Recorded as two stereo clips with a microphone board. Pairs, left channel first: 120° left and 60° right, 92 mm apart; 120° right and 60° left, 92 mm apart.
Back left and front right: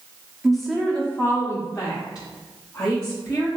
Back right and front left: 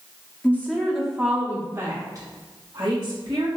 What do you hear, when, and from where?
0.4 s a woman speaking: 140° right, 1.0 m; by 3.5 s 85° left, 2.0 m